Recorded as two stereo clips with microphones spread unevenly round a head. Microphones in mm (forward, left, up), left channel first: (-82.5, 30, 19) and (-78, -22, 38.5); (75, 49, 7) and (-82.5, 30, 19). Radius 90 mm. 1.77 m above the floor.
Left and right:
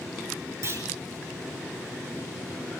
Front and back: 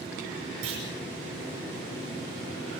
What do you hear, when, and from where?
0.6 s a clunk: 115° right, 9 m